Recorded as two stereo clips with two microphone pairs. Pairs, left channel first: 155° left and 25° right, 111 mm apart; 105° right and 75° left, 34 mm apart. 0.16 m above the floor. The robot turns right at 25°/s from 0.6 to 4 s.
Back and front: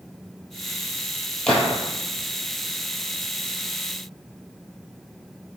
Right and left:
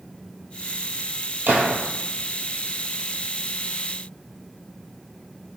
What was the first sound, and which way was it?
A gunshot, 75° left.